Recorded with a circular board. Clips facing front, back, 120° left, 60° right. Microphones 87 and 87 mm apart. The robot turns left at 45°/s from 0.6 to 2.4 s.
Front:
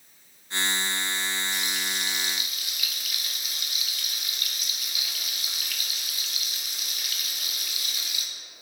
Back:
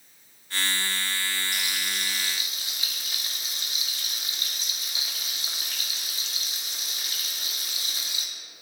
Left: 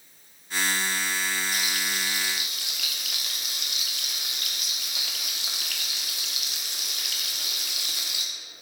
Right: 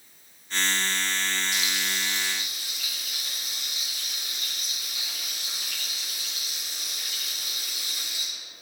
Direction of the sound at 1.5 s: 160° left.